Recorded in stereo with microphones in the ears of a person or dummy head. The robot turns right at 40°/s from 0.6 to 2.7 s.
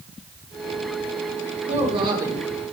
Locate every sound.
1.7 s a woman speaking: 40° right, 3 m; by 2.5 s 10° right, 3 m